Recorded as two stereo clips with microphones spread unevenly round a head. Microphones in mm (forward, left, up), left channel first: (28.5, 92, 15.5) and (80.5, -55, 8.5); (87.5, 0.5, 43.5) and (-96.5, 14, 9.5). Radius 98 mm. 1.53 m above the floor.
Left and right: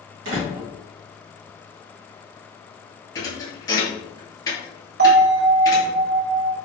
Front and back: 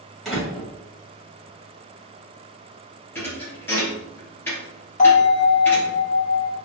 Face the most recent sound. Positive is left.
turn(degrees=-55)